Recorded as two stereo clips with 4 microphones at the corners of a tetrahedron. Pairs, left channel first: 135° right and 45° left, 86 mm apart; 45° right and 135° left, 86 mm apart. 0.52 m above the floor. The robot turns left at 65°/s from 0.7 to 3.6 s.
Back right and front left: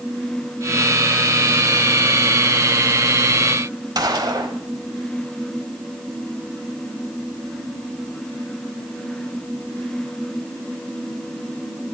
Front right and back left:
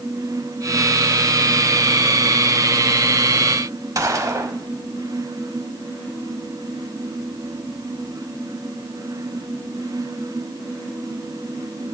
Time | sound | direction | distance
4.0 | a gunshot | 85° left | 0.9 m